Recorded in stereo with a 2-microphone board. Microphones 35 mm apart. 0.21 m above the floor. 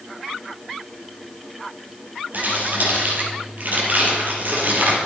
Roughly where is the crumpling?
Right.